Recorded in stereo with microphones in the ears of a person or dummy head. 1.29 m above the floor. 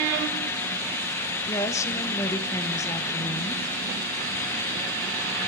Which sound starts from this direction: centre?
A woman speaking, at 1.5 s.